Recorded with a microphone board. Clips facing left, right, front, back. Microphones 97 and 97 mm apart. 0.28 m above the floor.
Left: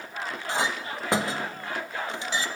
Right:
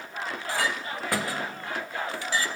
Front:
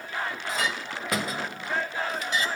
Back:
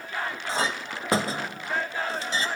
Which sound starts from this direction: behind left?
A clink, at 0.5 s.